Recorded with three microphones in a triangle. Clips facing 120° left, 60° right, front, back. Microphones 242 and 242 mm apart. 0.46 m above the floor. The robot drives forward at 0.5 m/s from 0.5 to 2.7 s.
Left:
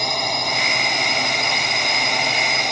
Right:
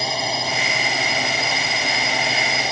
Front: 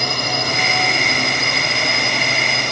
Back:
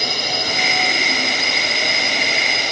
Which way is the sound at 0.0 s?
25° left.